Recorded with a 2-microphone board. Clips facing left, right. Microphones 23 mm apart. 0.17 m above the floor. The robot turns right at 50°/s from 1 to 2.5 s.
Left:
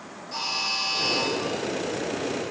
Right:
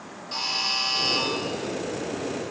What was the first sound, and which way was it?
A buzzer, 40° right (ahead or behind).